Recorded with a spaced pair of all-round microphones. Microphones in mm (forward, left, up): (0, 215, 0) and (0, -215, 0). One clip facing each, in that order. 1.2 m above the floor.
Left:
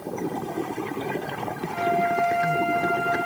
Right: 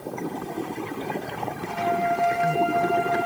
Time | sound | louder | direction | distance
1.7 | a flute | left 1 dB | 80° right | 4 m